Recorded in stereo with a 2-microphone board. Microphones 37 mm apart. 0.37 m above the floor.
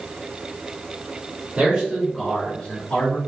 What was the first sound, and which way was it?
A man speaking, 35° right (ahead or behind).